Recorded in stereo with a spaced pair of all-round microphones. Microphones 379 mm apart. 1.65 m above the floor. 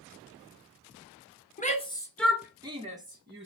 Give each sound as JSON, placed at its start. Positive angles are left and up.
{"t": 1.6, "sound": "a shout", "side_deg": 20, "distance_m": 1.3}